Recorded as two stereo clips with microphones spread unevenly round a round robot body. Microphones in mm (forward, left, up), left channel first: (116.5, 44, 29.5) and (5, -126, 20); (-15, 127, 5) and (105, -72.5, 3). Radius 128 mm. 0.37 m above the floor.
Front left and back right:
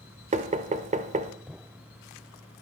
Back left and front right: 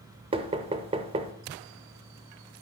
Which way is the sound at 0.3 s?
110° right.